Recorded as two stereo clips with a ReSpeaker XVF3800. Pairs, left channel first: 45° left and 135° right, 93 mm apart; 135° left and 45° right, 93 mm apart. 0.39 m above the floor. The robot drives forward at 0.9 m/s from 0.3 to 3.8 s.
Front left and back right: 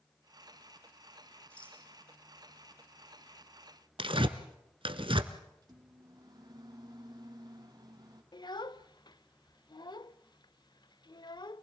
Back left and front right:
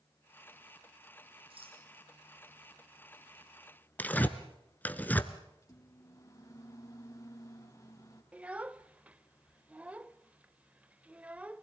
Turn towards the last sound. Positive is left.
turn(degrees=30)